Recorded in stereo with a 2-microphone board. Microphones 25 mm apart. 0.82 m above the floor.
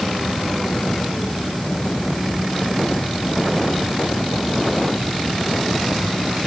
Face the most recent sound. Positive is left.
No sound to turn to.